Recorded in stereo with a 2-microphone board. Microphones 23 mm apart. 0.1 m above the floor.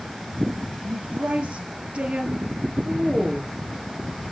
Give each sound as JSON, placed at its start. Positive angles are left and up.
{"t": 0.8, "sound": "a woman speaking", "side_deg": -55, "distance_m": 2.5}